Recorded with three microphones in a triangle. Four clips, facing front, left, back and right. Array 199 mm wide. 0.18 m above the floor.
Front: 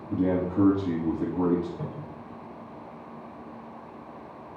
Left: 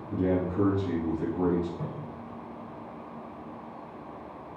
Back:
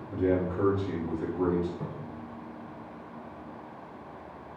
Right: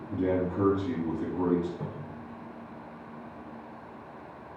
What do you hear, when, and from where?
0.1 s a man speaking: 10° left, 5 m
1.8 s a cupboard door: 35° left, 4.5 m